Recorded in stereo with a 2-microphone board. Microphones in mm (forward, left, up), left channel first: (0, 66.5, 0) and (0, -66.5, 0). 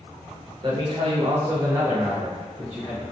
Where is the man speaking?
35° right (ahead or behind), 0.7 m; by 3.0 s centre (ahead or behind), 1.2 m.